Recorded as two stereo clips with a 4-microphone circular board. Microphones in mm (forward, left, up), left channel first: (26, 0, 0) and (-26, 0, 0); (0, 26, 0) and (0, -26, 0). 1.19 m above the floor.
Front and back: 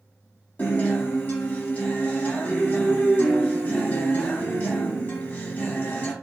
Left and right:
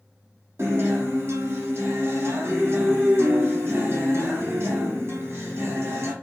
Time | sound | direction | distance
0.6 | a guitar | 50° right | 1.3 m